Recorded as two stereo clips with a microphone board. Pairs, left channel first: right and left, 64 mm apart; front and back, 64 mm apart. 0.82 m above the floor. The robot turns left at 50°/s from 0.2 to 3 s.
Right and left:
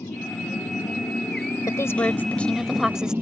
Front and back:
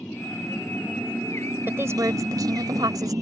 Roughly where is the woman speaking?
Behind right.